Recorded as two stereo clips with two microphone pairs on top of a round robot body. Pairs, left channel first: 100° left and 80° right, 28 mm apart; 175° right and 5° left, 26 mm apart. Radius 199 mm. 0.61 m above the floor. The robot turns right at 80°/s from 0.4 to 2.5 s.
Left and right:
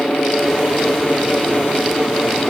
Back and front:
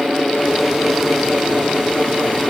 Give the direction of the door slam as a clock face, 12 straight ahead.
No door slam in this recording.